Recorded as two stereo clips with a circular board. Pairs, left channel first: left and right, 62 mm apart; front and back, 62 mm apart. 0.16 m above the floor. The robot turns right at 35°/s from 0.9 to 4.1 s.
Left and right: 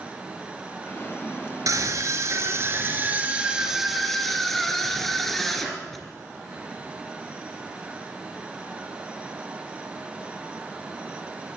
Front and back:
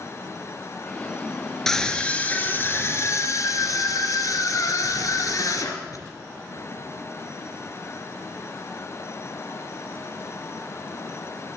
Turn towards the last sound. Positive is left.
turn(degrees=5)